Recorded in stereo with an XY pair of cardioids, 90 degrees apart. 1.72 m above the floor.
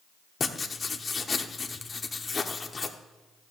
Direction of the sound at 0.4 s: 35° left.